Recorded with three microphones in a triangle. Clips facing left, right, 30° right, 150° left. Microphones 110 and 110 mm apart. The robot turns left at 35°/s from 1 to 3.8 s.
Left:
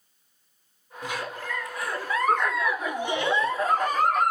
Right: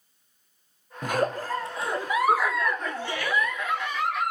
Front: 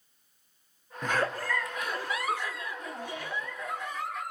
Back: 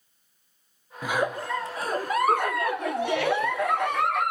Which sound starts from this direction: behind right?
A giggle, at 1.0 s.